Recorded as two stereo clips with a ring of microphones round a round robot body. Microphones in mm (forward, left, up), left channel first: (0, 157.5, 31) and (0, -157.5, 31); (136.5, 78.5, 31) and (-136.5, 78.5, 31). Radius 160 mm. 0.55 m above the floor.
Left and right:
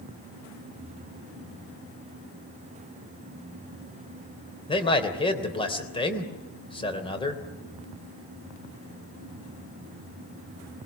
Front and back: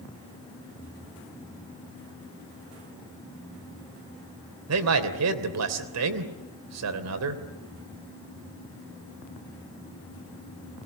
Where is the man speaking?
165° left, 3 m.